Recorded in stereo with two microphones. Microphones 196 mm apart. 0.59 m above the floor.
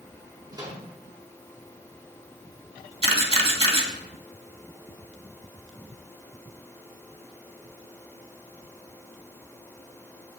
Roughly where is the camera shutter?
Right.